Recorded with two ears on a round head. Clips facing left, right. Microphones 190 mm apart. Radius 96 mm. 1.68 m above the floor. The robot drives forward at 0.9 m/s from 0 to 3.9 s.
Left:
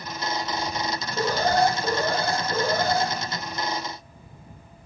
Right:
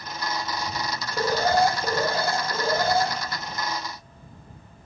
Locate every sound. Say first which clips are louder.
1.2 s an alarm: right 1 dB; 10° right (ahead or behind), 3 m; by 3.1 s 5° right (ahead or behind), 5 m